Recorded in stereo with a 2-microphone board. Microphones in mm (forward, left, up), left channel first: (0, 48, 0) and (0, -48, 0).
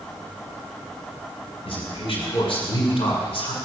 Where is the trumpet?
I don't hear a trumpet.